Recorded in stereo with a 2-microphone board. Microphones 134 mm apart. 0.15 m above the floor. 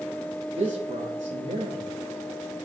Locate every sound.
0.6 s a man speaking: 60° right (ahead or behind), 4 m